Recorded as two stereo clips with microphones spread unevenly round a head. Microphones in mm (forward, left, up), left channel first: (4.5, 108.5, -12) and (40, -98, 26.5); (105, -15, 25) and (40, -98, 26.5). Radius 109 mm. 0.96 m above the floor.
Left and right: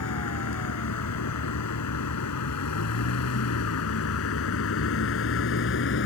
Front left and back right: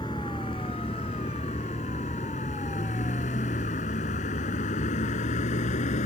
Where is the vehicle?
125° left; by 6.1 s 70° left.